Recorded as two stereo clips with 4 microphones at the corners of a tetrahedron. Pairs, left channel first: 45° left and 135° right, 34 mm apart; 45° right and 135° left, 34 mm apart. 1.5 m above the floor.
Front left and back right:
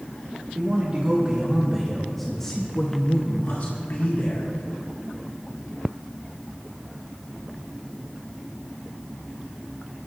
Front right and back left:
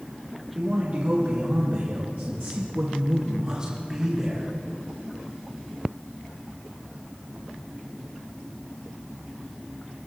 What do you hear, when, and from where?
0.6 s a man speaking: straight behind, 2.0 m; by 4.5 s 55° left, 2 m